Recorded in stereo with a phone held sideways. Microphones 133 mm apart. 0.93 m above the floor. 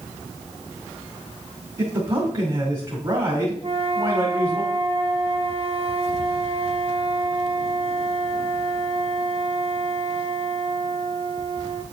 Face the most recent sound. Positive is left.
turn(degrees=-50)  # may be behind; listen again after turning